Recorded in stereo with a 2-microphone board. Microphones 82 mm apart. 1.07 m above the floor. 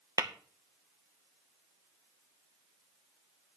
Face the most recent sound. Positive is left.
turn(degrees=-40)  # may be behind; listen again after turning